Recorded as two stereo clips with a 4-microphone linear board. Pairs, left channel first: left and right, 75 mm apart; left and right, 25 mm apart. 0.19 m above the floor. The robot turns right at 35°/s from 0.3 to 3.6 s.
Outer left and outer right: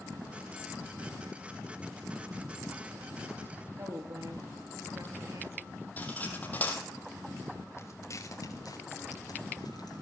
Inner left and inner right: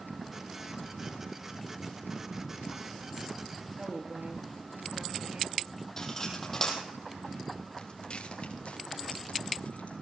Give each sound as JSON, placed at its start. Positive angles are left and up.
{"t": 3.8, "sound": "a woman speaking", "side_deg": -55, "distance_m": 3.5}
{"t": 6.0, "sound": "cutlery clinking", "side_deg": 25, "distance_m": 3.5}
{"t": 7.8, "sound": "footsteps", "side_deg": 40, "distance_m": 3.0}